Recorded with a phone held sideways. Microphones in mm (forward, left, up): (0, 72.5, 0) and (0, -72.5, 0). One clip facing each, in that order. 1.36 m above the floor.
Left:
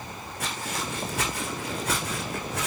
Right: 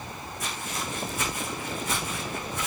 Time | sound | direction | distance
0.4 | footsteps | 65° left (ahead or behind) | 4.5 m